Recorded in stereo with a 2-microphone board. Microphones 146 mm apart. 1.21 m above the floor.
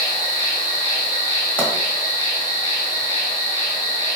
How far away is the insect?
About 1.1 m.